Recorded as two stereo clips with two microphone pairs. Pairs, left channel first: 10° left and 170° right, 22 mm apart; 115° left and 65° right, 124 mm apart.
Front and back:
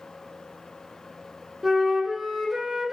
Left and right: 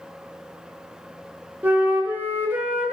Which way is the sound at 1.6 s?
115° right.